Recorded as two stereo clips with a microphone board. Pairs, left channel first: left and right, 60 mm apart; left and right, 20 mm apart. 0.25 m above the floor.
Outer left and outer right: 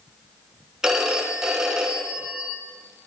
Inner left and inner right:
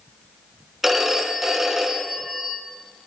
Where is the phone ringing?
5° right (ahead or behind), 1.4 m.